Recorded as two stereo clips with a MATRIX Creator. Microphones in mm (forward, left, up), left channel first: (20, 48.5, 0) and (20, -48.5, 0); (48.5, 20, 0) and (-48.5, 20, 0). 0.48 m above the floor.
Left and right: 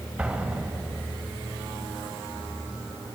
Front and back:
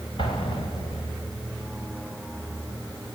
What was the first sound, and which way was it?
An explosion, 10° right.